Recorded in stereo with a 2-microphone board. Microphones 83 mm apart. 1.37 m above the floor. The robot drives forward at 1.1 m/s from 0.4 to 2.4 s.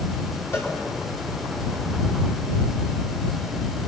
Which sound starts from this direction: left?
A cowbell, at 0.5 s.